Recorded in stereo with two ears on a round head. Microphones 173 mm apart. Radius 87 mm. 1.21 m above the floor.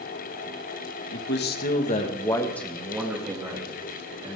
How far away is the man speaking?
About 2 m.